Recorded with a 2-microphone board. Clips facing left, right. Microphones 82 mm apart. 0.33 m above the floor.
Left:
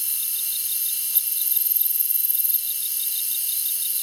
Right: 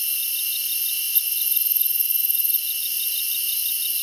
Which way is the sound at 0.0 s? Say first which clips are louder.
Right 6 dB; 30° left (ahead or behind).